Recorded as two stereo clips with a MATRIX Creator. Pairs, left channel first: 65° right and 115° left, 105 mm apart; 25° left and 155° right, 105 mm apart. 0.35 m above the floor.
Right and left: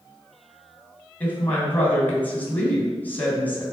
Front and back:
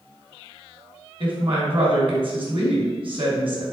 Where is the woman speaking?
140° right, 2.5 m.